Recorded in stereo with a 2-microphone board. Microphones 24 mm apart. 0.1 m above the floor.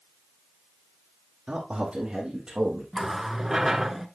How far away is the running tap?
About 0.8 m.